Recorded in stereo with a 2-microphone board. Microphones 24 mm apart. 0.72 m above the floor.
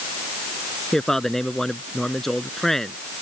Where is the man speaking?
15° left (ahead or behind).